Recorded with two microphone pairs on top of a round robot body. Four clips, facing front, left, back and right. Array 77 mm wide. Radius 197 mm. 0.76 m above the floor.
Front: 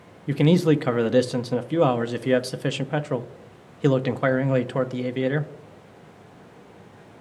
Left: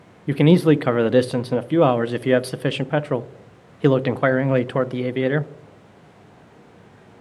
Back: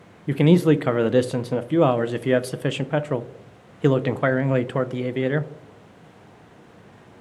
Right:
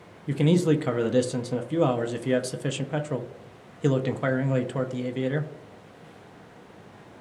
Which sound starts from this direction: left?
A man speaking, at 0.3 s.